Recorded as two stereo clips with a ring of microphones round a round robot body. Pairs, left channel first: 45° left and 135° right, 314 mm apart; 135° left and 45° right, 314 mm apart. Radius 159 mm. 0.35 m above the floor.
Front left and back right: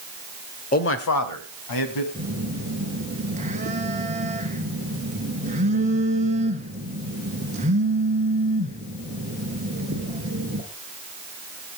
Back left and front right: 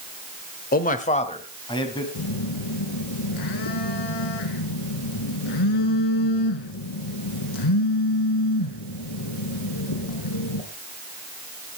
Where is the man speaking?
95° left, 1.1 m; by 2.0 s 55° left, 2.5 m.